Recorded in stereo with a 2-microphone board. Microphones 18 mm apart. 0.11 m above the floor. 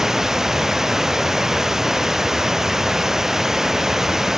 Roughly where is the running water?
Right.